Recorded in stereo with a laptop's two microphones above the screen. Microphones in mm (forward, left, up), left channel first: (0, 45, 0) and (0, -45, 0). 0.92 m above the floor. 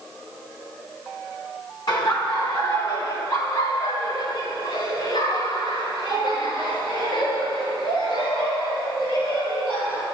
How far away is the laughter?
About 1.1 m.